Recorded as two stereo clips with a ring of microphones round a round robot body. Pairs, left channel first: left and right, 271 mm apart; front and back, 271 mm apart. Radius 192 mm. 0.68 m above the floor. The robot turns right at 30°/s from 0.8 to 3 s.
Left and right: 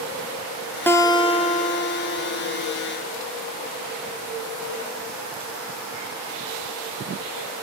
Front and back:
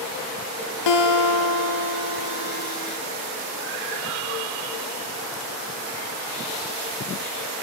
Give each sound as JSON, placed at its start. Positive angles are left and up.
{"t": 0.9, "sound": "a guitar", "azimuth_deg": 10, "distance_m": 3.0}